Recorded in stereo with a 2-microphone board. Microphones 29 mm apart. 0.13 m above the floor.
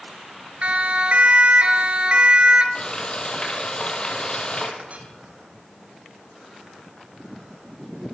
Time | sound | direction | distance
0.6 | a siren | 50° right (ahead or behind) | 3 m
2.8 | frying | 35° left (ahead or behind) | 4 m
4.8 | a clink | 55° right (ahead or behind) | 3 m